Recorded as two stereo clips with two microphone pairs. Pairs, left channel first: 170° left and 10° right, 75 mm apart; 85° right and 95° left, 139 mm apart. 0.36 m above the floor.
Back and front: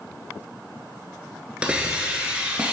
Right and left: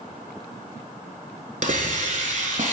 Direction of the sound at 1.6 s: 65° left.